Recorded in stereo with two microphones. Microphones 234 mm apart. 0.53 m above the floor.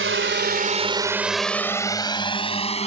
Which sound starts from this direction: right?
A drone, at 0.0 s.